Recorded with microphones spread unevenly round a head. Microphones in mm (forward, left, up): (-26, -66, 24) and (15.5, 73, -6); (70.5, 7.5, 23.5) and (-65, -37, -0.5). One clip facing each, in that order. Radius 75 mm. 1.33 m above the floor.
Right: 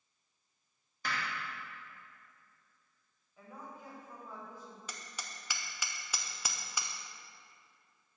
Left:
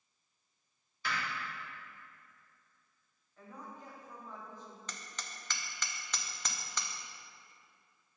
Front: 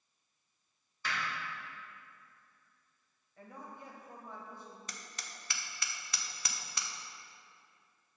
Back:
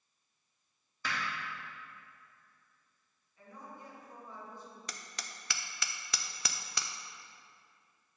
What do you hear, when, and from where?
1.0 s hammering: 160° right, 2.5 m
3.4 s a woman speaking: 20° right, 1.7 m
4.9 s hammering: 170° left, 0.5 m